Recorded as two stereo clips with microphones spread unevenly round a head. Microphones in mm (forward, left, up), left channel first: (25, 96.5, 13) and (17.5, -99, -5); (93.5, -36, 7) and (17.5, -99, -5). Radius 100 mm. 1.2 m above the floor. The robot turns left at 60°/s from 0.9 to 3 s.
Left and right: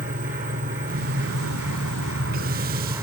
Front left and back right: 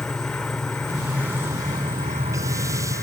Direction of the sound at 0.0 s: 45° right.